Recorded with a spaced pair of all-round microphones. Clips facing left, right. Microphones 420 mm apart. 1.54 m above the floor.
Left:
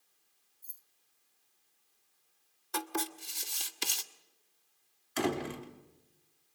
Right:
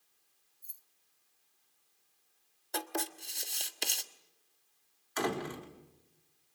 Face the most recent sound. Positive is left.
turn(degrees=45)  # may be behind; listen again after turning